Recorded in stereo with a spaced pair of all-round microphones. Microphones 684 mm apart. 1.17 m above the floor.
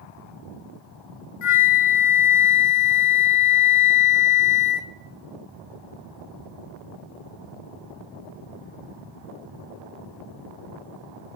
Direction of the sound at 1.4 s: 55° left (ahead or behind).